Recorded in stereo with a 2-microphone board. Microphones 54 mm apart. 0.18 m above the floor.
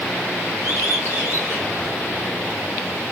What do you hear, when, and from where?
0.6 s a bird: 65° left (ahead or behind), 8 m